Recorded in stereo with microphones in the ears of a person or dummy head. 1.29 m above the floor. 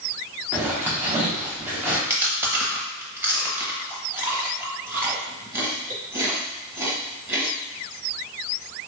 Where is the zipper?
10° right (ahead or behind), 1.0 m.